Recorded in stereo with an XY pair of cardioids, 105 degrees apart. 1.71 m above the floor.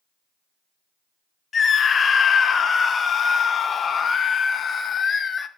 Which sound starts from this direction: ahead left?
A scream, at 1.5 s.